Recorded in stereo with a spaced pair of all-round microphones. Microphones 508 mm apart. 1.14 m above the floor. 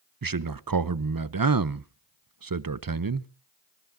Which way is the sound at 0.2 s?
45° right (ahead or behind).